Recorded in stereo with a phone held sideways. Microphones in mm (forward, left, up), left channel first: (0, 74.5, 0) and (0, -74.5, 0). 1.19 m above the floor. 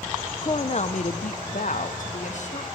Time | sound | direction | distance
0.4 | a woman speaking | 30° left (ahead or behind) | 0.6 m